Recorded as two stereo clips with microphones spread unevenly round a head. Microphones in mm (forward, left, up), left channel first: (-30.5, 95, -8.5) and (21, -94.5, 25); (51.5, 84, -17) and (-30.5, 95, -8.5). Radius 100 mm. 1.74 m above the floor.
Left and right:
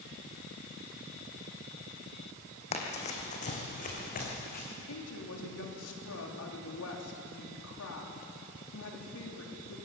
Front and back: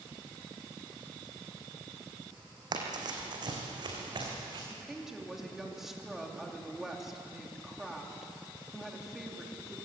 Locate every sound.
2.7 s running footsteps: 170° left, 3.5 m; by 4.6 s 155° left, 6 m
4.7 s a woman speaking: 90° left, 4 m